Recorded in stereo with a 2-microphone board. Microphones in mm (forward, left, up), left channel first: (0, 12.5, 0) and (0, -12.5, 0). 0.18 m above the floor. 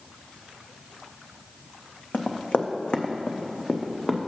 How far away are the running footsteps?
About 0.7 m.